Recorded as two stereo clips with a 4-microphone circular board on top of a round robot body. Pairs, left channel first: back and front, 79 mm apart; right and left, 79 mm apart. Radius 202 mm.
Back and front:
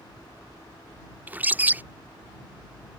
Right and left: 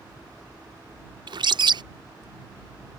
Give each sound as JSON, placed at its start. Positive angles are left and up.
{"t": 1.3, "sound": "a bird", "azimuth_deg": 65}